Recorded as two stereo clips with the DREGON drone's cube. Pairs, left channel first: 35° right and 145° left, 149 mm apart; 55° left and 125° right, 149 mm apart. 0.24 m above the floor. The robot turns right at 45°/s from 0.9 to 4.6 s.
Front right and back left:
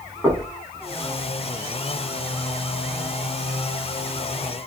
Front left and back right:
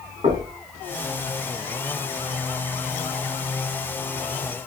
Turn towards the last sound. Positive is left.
turn(degrees=55)